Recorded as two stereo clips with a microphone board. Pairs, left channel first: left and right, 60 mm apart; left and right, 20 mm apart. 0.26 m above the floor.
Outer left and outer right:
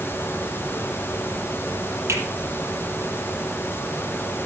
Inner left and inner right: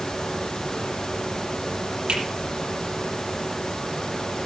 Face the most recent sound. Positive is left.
turn(degrees=-50)  # may be behind; listen again after turning